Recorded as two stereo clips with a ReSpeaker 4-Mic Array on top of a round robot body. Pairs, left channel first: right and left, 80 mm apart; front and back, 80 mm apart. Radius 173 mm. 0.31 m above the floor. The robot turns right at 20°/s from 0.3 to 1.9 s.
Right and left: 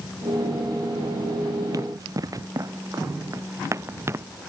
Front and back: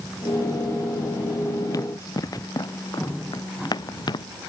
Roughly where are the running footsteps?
Ahead left.